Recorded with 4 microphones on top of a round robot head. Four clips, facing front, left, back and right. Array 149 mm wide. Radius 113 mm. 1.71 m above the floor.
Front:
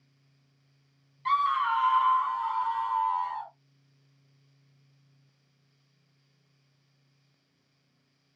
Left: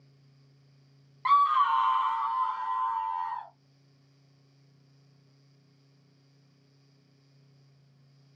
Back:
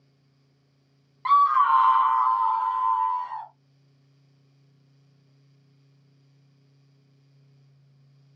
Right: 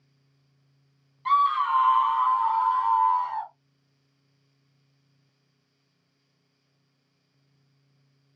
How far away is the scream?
About 0.6 m.